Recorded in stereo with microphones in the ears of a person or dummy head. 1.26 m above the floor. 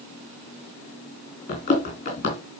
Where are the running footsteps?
40° left (ahead or behind), 3 m.